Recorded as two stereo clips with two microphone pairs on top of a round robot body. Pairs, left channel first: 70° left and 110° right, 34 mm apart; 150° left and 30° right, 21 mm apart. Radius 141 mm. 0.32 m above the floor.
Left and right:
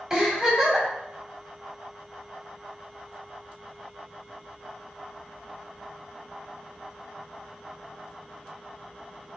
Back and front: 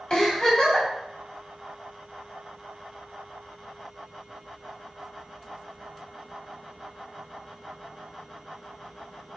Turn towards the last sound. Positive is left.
turn(degrees=-175)